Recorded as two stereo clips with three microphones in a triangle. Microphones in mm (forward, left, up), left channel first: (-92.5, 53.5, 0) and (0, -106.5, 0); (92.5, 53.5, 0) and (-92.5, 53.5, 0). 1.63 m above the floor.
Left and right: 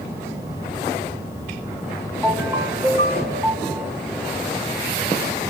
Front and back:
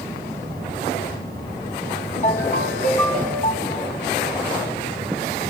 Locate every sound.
2.2 s a ringtone: 15° left, 1.8 m